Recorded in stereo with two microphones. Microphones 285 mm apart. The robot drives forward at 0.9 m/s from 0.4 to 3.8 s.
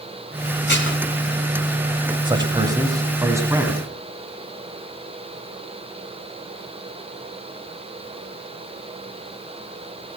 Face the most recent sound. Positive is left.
turn(degrees=-10)  # may be behind; listen again after turning